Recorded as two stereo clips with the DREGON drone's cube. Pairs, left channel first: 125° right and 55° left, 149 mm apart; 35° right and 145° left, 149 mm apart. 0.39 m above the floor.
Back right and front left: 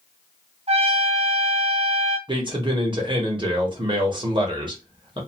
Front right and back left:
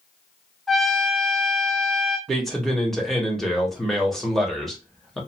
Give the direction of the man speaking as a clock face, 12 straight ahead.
10 o'clock.